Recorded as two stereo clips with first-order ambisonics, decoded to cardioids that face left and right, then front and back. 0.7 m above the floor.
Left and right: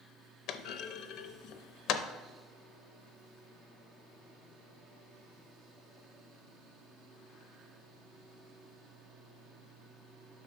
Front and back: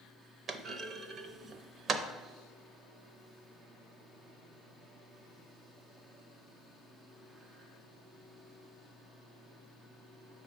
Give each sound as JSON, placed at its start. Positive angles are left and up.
{"t": 0.5, "sound": "a clunk", "azimuth_deg": 120, "distance_m": 0.6}